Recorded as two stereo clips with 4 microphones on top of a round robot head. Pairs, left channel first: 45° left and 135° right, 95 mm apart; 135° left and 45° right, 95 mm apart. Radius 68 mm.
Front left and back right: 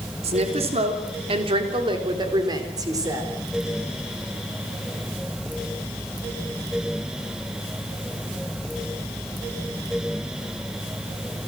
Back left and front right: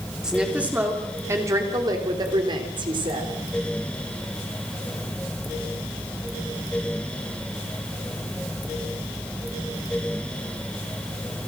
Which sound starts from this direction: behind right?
A woman speaking, at 0.2 s.